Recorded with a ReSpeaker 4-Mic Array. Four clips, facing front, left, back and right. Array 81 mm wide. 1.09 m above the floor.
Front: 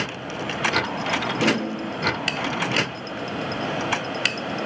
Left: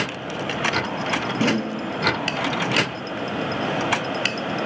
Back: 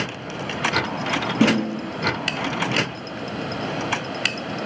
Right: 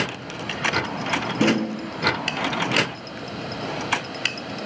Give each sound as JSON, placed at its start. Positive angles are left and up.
{"t": 1.4, "sound": "a snare drum", "azimuth_deg": -170, "distance_m": 5.5}